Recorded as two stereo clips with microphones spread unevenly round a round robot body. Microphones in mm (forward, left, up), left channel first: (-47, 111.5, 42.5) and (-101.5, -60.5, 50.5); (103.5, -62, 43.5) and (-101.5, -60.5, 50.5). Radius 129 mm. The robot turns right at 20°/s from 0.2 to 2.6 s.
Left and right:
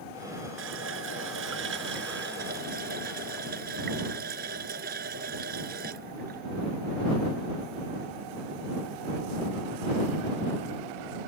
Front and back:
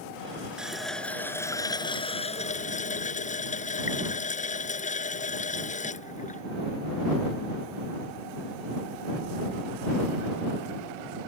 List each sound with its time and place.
0.6 s a running tap: 95° right; by 6.4 s 55° right